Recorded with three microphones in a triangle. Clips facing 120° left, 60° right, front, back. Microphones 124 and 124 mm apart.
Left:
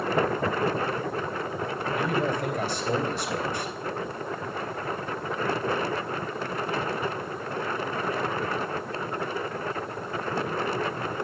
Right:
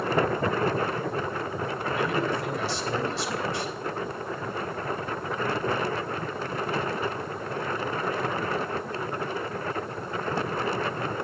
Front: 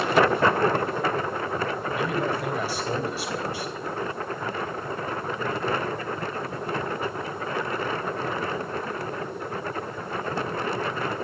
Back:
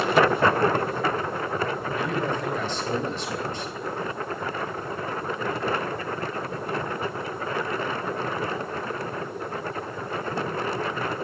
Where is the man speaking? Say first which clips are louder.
Left 1 dB, front 1 dB; 80° left, 3.5 m.